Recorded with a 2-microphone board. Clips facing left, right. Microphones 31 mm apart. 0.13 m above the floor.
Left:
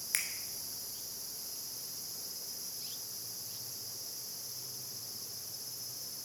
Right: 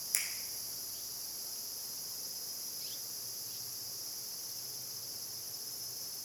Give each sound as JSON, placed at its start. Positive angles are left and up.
{"t": 0.1, "sound": "a finger snap", "side_deg": 45, "distance_m": 1.5}